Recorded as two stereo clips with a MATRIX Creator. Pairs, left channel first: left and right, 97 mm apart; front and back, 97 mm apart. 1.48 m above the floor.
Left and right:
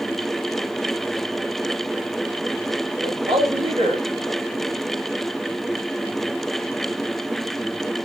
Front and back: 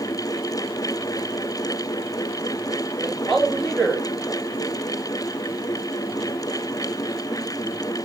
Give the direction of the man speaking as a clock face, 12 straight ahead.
3 o'clock.